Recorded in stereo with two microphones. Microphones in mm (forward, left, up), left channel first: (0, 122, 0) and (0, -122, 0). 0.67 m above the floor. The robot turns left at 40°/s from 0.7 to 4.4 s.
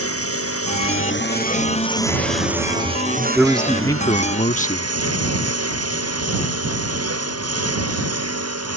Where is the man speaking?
175° right; by 4.9 s 145° left.